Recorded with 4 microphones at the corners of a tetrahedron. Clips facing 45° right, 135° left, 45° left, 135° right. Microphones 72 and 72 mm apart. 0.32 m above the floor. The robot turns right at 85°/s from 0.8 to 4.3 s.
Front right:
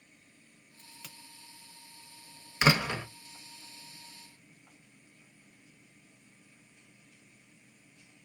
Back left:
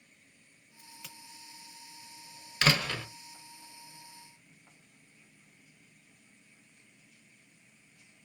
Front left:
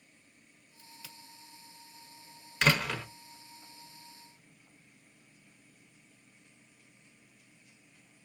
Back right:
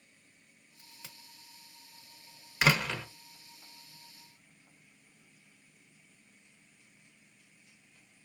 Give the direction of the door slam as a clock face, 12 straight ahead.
2 o'clock.